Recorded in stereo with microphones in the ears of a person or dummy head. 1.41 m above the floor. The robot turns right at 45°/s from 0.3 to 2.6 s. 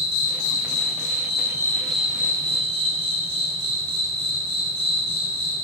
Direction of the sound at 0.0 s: 100° left.